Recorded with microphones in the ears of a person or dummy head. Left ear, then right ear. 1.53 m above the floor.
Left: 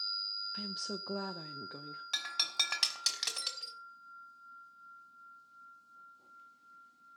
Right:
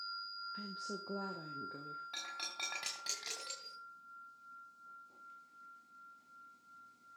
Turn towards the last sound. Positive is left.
turn(degrees=65)  # may be behind; listen again after turning